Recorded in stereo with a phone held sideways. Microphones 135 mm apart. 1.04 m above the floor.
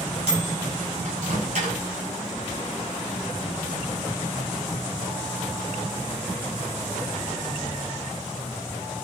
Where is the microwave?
75° right (ahead or behind), 4.5 m.